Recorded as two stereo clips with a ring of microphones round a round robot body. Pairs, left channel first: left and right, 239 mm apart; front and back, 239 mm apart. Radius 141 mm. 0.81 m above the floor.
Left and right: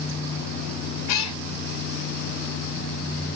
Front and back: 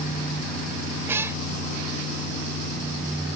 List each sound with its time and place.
1.1 s a cat meowing: 100° left